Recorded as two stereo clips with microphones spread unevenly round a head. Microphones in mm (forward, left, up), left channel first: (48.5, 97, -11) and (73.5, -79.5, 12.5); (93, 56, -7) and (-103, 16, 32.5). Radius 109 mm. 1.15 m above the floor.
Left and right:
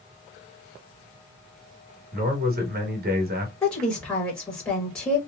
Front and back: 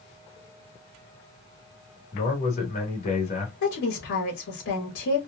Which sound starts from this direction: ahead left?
A woman speaking, at 3.6 s.